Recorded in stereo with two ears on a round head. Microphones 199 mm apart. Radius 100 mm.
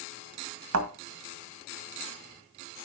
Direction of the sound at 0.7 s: 70° right (ahead or behind).